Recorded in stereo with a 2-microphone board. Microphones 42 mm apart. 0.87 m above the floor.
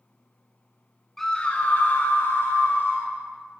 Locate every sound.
1.2 s a scream: 5° left (ahead or behind), 0.9 m; by 3.1 s 65° left (ahead or behind), 3 m